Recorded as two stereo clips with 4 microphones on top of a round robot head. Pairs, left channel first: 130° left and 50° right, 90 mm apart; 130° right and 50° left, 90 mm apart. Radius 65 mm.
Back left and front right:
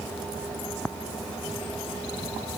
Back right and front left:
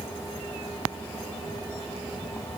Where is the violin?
I don't hear a violin.